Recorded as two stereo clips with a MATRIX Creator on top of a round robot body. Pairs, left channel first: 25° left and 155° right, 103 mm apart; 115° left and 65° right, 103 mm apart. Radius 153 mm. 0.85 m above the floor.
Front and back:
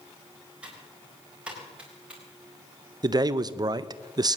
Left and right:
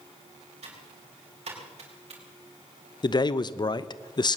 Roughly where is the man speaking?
Behind left.